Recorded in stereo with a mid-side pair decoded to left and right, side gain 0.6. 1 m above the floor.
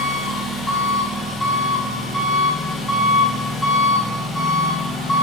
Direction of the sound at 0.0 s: 20° left.